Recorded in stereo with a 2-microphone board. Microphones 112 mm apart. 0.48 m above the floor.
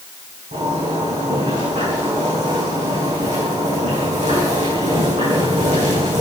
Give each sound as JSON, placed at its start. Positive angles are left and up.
{"t": 0.5, "sound": "a zipper", "side_deg": -90, "distance_m": 7.0}